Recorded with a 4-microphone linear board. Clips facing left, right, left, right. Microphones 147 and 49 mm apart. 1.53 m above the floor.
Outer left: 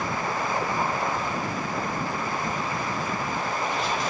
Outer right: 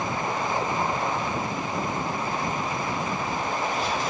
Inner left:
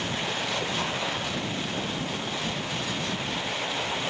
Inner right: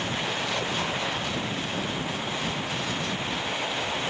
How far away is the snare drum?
No snare drum in this recording.